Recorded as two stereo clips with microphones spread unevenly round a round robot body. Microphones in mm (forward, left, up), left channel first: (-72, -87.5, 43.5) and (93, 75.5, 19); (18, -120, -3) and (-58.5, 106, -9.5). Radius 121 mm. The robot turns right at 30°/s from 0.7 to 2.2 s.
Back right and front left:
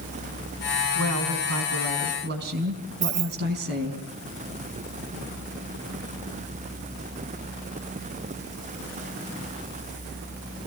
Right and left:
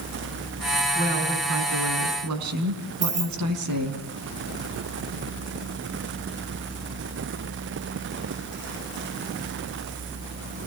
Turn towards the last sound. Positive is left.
turn(degrees=50)